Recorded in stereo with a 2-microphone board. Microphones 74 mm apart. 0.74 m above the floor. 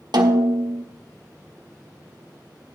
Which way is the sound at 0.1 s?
70° right (ahead or behind).